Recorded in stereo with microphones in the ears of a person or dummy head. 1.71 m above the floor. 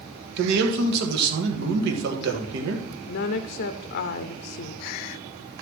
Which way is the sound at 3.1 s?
60° left (ahead or behind).